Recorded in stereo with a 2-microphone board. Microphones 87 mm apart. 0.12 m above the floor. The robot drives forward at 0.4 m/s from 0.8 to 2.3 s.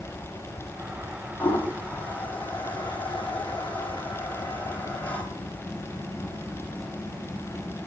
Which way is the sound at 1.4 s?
20° left (ahead or behind).